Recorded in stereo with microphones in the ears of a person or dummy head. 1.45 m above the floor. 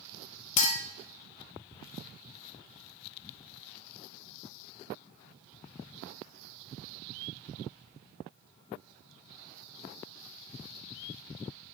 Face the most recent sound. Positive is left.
turn(degrees=45)  # may be behind; listen again after turning